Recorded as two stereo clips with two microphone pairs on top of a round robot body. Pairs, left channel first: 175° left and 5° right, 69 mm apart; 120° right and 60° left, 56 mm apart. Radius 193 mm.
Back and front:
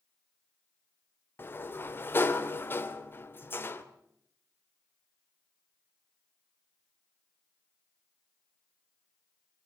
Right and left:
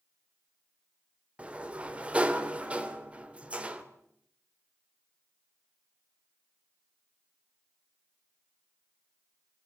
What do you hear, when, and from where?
1.4 s a sliding door: 125° left, 1.8 m